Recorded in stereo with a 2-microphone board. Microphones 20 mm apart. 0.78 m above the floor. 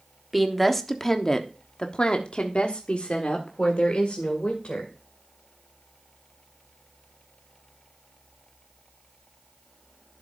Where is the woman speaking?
Centre (ahead or behind), 1.3 m; by 4.9 s 80° left, 2.5 m.